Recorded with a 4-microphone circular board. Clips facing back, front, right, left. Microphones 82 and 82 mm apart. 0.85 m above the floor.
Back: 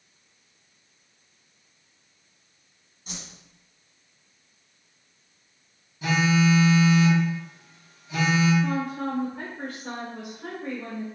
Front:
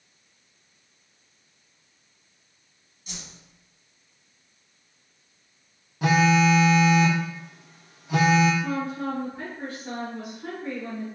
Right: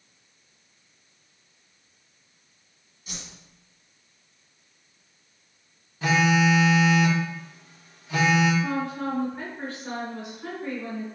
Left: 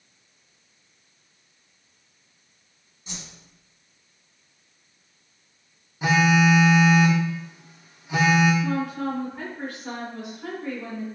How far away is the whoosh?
About 1.3 m.